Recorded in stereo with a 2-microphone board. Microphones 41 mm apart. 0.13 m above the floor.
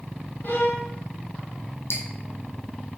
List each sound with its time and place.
0.4 s a violin: 50° left (ahead or behind), 1.2 m
1.9 s dripping: 70° left (ahead or behind), 1.6 m